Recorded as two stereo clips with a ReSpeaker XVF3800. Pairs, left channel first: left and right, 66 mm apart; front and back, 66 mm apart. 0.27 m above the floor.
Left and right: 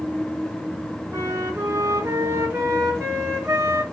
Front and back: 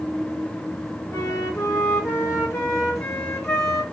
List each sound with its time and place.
1.1 s a flute: 35° right, 3 m